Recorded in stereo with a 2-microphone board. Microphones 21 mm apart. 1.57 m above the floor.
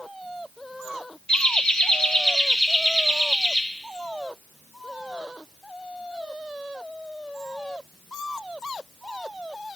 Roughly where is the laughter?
Left.